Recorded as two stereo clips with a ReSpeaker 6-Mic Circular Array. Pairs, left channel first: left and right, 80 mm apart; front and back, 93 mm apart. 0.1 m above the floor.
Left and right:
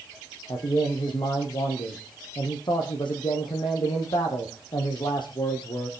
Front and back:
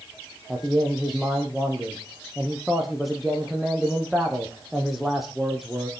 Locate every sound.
0.5 s a man speaking: 90° left, 4 m